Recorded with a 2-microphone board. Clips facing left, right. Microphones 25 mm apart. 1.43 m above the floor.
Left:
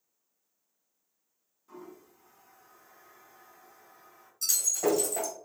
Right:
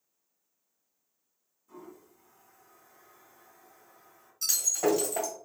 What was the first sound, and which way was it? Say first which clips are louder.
A toilet flushing: left 1 dB; 40° left (ahead or behind).